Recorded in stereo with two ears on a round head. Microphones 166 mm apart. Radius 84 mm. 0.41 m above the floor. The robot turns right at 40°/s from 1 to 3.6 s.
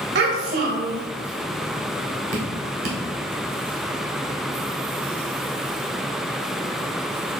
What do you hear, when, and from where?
0.1 s a child speaking: 55° right (ahead or behind), 1.5 m
2.3 s dripping: 50° right (ahead or behind), 2 m; by 3.0 s 55° right (ahead or behind), 2 m